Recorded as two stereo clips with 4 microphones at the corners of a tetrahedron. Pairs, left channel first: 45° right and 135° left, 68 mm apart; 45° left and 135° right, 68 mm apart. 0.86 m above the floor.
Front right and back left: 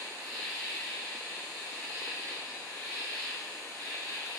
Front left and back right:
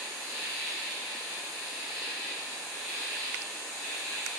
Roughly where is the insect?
Behind left.